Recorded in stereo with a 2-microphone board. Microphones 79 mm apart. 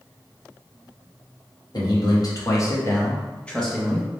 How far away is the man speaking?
About 1.3 m.